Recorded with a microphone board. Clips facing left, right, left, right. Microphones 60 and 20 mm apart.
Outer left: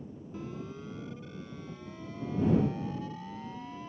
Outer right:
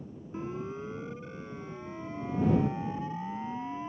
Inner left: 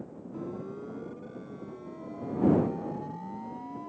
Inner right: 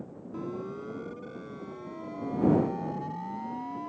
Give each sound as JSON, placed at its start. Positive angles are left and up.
{"t": 0.3, "sound": "a siren", "side_deg": -25}